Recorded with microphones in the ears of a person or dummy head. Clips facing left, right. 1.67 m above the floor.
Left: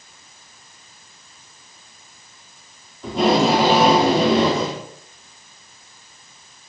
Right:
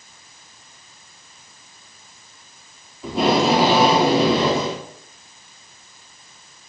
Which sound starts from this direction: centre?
Tape being pulled, at 3.0 s.